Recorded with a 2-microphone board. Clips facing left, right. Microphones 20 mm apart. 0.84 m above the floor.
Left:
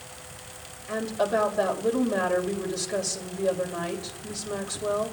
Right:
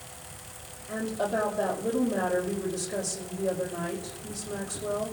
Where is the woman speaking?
60° left (ahead or behind), 5 m.